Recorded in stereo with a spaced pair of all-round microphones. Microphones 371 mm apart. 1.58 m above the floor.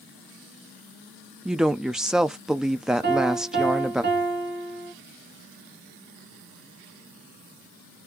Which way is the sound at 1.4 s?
Centre (ahead or behind).